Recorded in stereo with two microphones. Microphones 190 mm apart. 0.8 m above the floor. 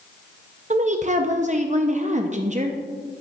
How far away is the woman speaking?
About 0.6 m.